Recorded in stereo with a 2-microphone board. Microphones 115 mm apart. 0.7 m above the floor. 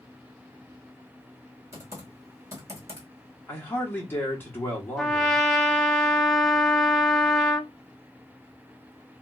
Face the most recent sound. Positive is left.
turn(degrees=5)  # may be behind; listen again after turning